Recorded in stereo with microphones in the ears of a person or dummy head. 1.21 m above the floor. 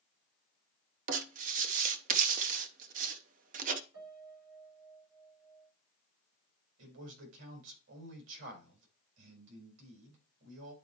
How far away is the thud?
I don't hear a thud.